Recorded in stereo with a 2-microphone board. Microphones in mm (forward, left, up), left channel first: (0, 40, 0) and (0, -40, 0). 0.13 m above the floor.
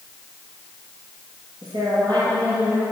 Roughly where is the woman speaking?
Right.